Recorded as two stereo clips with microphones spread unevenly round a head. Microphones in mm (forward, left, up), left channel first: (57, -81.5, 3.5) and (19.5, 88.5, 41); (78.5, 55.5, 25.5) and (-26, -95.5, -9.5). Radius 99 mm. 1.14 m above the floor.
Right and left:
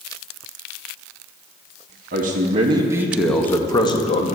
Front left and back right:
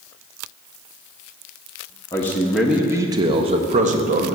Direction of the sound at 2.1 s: 140° left.